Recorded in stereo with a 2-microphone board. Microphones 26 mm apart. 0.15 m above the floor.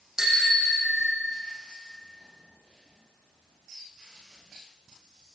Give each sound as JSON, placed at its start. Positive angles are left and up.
{"t": 0.2, "sound": "a bicycle bell", "side_deg": -15, "distance_m": 5.5}